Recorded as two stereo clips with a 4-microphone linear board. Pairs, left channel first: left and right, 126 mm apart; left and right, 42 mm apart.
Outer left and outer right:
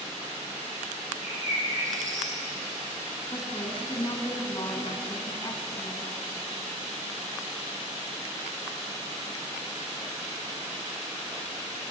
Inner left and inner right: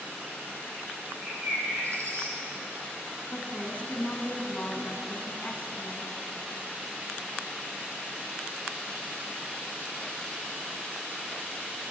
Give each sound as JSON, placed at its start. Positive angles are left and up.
{"t": 1.2, "sound": "a bird", "side_deg": -80, "distance_m": 9.0}
{"t": 3.3, "sound": "a woman speaking", "side_deg": 35, "distance_m": 3.5}